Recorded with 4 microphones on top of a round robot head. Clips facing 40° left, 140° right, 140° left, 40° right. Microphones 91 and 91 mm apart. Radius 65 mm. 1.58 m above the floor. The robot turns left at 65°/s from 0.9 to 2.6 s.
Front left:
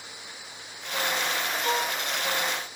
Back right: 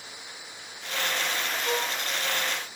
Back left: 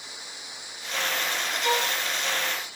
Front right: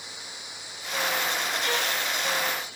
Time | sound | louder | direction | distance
1.6 | a violin | front left 2 dB, back left 6 dB | 80° left | 3 m